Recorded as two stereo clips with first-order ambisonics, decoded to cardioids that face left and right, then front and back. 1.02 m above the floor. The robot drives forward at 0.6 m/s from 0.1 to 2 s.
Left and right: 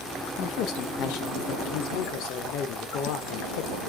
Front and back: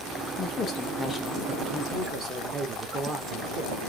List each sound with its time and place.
0.4 s a woman speaking: 60° left, 1.3 m; by 3.8 s 110° left, 1.2 m